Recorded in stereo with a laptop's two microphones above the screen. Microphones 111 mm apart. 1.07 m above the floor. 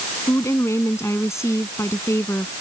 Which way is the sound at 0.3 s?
25° left (ahead or behind).